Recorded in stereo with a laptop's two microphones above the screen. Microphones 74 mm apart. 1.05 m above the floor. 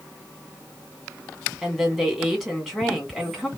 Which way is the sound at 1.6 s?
Centre (ahead or behind).